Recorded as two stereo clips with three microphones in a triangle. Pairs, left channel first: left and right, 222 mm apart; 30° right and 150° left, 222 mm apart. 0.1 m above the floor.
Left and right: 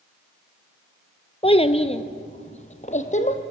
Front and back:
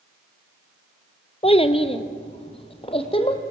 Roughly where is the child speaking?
Ahead left.